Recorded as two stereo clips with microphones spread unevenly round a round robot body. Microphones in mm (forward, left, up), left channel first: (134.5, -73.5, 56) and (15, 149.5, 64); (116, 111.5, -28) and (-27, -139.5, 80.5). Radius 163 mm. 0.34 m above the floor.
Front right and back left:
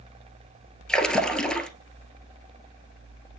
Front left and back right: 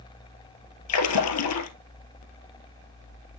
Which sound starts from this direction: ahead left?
A splash, at 0.9 s.